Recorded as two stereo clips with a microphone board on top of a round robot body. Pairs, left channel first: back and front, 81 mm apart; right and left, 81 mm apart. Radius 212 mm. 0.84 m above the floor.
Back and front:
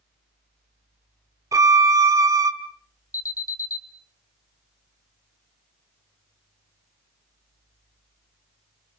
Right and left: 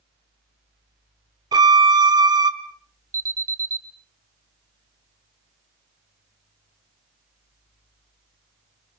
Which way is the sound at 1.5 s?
50° left.